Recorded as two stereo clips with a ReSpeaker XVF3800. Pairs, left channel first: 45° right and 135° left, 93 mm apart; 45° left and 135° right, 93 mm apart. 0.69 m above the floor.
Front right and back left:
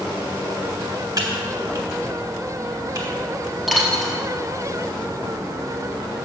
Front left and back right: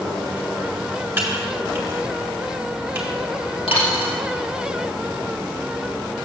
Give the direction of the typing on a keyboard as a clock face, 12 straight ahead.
7 o'clock.